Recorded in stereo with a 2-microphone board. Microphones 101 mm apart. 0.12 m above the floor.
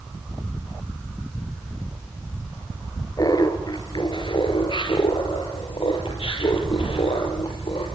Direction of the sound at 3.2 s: 40° left (ahead or behind).